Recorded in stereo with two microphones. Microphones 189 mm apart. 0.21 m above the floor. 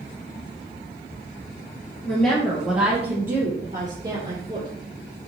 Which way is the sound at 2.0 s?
10° left (ahead or behind).